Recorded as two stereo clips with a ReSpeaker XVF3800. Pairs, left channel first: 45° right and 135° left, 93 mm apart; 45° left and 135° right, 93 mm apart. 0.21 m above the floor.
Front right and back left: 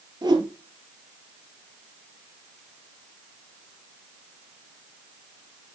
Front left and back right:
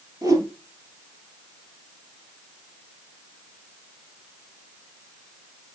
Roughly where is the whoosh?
Behind.